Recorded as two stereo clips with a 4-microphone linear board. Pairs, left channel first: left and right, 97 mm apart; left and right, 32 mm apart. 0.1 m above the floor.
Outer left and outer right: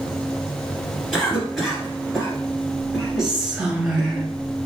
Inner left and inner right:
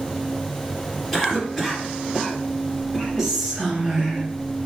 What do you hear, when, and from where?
1.1 s a cough: centre (ahead or behind), 1.6 m
3.2 s whispering: 5° right (ahead or behind), 1.3 m